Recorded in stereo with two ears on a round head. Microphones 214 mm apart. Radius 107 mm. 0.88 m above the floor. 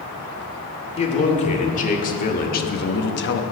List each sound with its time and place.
1.0 s a man speaking: 30° left (ahead or behind), 2 m; by 3.4 s 55° left (ahead or behind), 0.9 m